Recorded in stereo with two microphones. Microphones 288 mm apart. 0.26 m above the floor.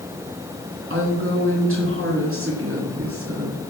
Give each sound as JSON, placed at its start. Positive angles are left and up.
{"t": 0.9, "sound": "a woman speaking", "side_deg": -45, "distance_m": 3.0}